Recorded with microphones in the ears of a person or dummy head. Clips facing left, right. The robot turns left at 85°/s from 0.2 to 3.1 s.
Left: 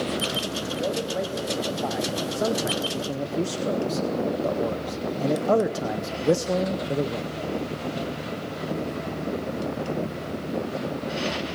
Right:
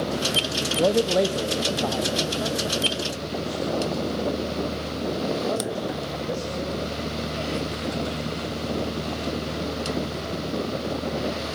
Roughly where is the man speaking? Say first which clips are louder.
Right 9 dB; ahead right.